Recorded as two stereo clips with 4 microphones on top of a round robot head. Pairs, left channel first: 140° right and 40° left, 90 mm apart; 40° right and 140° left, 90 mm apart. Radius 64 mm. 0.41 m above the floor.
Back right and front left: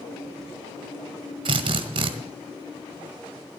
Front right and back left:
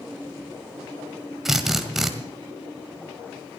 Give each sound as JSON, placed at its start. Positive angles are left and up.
{"t": 1.4, "sound": "a drill", "azimuth_deg": 55, "distance_m": 1.7}